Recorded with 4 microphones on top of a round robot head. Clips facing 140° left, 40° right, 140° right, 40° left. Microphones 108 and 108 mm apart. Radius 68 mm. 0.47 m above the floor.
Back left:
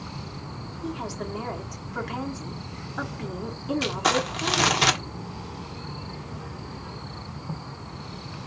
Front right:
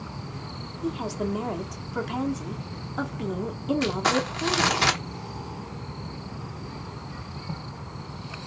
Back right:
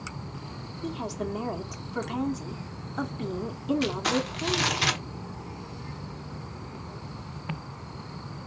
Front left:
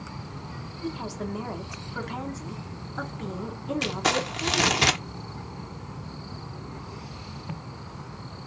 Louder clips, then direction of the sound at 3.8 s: Back left 1 dB, even; 60° left.